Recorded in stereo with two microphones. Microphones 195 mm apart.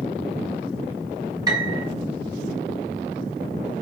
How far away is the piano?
About 4.5 m.